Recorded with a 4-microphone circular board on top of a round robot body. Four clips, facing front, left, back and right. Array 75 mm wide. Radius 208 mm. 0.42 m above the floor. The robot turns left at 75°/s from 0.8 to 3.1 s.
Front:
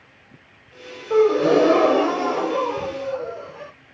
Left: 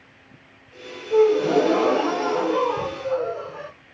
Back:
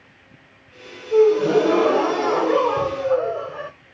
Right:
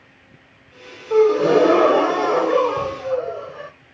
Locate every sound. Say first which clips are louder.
1.1 s a gasp: right 3 dB, back 1 dB; 25° right, 0.7 m; by 3.7 s 175° right, 0.7 m